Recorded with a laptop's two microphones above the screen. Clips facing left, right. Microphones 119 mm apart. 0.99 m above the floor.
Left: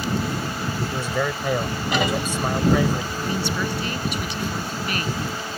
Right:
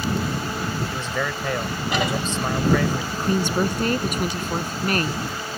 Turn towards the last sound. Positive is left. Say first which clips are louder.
# right 4 dB
turn(degrees=-45)  # may be behind; listen again after turning